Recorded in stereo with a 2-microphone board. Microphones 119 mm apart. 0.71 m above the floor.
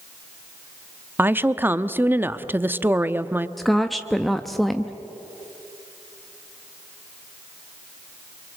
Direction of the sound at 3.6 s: Centre (ahead or behind).